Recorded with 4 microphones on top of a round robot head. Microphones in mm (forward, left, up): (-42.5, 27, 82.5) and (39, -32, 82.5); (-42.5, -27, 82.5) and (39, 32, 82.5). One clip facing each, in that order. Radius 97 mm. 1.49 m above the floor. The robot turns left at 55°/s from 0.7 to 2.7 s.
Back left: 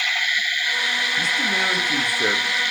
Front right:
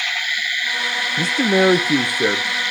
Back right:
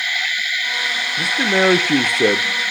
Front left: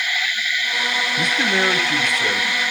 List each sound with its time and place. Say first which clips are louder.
1.2 s a man speaking: front right 12 dB, back right 5 dB; 55° right, 0.6 m; by 2.4 s 125° right, 0.6 m